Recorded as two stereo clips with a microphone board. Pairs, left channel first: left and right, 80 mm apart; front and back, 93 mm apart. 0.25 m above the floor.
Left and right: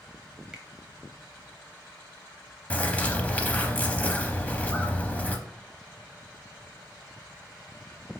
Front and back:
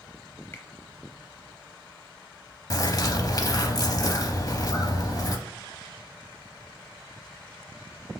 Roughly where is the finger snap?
Ahead right.